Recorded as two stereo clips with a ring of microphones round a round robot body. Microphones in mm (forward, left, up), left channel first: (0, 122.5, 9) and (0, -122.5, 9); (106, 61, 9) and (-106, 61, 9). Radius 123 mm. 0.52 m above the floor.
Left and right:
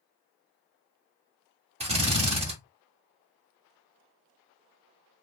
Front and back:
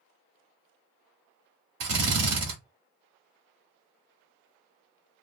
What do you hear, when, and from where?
1.8 s a drill: 155° right, 1.6 m